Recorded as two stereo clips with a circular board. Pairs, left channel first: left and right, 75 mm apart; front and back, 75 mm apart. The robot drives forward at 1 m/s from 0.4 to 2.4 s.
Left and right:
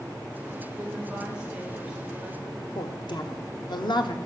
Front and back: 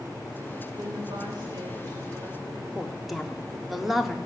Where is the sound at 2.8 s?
90° left, 0.8 m.